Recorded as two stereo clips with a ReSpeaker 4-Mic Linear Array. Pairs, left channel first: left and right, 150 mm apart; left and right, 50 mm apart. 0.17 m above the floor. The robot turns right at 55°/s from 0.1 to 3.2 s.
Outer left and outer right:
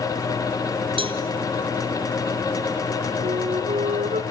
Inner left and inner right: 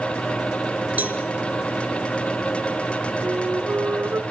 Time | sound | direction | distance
1.0 | a cowbell | 35° right (ahead or behind) | 2.0 m
3.2 | a flute | 50° right (ahead or behind) | 1.8 m